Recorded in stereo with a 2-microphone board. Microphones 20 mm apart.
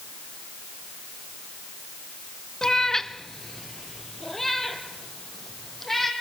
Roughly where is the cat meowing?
Left.